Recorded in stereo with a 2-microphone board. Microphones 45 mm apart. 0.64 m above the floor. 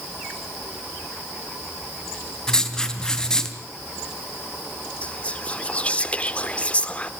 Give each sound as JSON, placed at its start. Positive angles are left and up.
{"t": 2.5, "sound": "writing", "side_deg": 10, "distance_m": 3.5}
{"t": 5.0, "sound": "whispering", "side_deg": 30, "distance_m": 1.6}